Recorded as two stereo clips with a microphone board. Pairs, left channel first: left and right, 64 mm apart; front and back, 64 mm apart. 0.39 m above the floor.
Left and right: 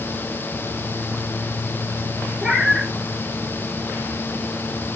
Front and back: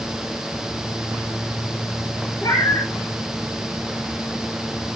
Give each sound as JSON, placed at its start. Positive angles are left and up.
{"t": 2.4, "sound": "a cat meowing", "azimuth_deg": -10, "distance_m": 0.7}